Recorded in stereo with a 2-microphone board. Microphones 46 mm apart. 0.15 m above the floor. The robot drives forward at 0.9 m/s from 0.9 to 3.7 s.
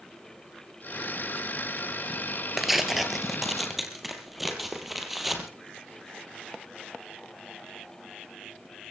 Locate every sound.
2.6 s tearing paper: 5° right (ahead or behind), 1.8 m